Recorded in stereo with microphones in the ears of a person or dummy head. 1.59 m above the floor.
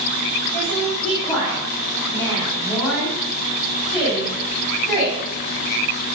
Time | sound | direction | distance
0.5 | a woman speaking | 15° left (ahead or behind) | 2.5 m